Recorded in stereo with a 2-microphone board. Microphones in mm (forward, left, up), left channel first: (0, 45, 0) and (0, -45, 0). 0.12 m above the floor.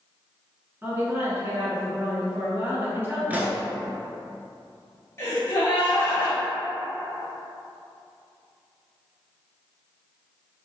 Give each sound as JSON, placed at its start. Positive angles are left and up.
{"t": 0.8, "sound": "a woman speaking", "side_deg": -25, "distance_m": 1.6}
{"t": 3.3, "sound": "a pop", "side_deg": -20, "distance_m": 0.6}
{"t": 5.2, "sound": "a gasp", "side_deg": 30, "distance_m": 1.4}